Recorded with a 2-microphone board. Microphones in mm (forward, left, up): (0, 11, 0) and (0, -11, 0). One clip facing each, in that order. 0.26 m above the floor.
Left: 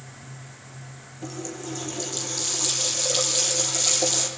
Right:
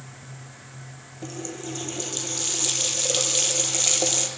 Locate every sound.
1.2 s a running tap: 15° right (ahead or behind), 5.5 m